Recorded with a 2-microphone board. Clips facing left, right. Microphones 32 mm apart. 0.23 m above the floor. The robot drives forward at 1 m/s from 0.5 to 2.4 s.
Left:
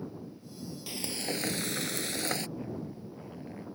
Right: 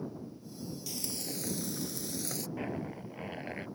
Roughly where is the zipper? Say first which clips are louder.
Right 2 dB; right.